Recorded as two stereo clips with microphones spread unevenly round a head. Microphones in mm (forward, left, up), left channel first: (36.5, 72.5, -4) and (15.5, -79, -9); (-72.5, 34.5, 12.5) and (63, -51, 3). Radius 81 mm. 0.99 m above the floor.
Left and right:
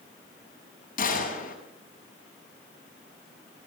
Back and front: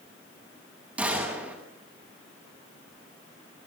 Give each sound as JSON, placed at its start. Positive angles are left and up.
{"t": 1.0, "sound": "a gunshot", "azimuth_deg": 50, "distance_m": 7.5}